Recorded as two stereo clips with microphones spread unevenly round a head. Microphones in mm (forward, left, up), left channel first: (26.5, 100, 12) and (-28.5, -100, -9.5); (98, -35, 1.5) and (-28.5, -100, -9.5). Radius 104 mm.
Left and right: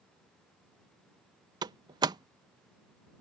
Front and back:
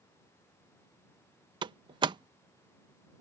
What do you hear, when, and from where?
1.6 s a door slam: 165° right